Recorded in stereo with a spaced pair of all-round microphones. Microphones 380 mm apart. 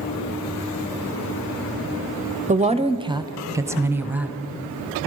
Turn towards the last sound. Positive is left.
turn(degrees=-5)  # may be behind; listen again after turning